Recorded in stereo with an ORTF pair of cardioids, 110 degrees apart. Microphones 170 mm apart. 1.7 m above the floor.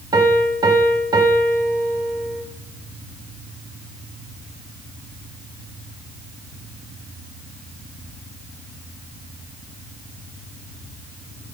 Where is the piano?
20° right, 1.3 m.